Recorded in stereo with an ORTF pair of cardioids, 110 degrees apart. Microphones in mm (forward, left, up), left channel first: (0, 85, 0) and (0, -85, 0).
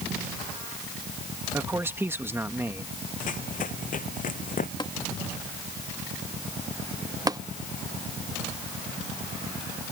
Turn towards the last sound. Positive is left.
turn(degrees=-20)